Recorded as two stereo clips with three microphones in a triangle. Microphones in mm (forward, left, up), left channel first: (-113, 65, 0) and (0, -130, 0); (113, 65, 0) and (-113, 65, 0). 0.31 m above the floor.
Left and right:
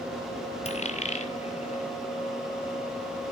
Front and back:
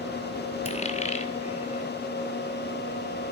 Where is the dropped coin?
60° left, 1.2 m.